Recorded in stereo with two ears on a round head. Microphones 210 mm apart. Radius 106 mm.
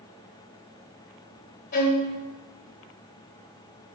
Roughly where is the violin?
Left.